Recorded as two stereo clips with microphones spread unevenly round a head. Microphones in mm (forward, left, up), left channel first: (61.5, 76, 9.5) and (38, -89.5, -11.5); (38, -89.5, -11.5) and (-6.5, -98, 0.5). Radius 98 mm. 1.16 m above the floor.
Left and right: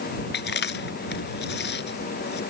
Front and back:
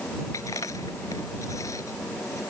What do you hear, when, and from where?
0.3 s chewing: 70° left